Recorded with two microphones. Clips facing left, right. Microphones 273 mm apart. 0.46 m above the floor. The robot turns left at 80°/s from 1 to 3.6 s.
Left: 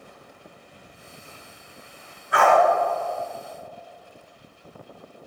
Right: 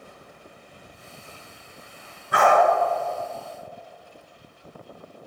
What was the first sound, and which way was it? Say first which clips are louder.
A dog barking: even; 50° right (ahead or behind).